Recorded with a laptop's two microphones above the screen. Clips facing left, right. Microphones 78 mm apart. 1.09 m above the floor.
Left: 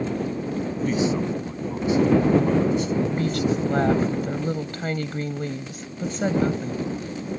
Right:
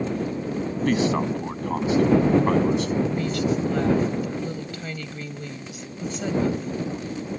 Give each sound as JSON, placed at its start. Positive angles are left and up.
{"t": 0.8, "sound": "a man speaking", "side_deg": -85}
{"t": 3.1, "sound": "a woman speaking", "side_deg": 45}